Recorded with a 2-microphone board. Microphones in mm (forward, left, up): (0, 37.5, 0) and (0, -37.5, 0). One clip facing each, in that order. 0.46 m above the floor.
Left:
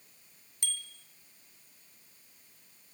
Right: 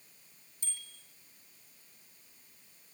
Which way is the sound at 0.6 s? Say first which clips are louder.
Left 9 dB; 75° left (ahead or behind).